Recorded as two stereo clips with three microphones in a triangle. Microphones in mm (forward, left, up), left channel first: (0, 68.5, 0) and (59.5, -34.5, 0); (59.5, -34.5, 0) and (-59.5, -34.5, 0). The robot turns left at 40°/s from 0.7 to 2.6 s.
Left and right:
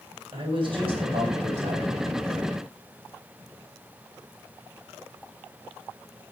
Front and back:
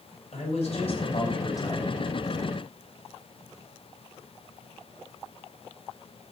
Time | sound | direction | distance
0.3 | a man speaking | 20° right | 3 m